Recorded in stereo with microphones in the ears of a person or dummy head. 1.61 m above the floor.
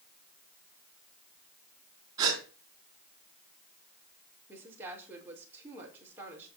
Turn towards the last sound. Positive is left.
turn(degrees=-10)  # may be behind; listen again after turning